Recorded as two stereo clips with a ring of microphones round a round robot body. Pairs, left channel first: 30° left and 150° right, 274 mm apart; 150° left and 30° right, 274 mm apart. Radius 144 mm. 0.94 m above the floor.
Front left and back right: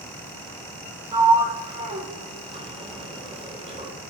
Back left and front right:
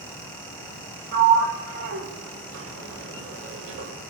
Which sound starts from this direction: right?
A sliding door, at 1.1 s.